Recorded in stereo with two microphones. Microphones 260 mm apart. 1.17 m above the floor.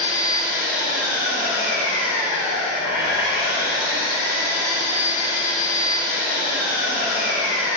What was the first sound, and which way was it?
An engine running, 35° right (ahead or behind).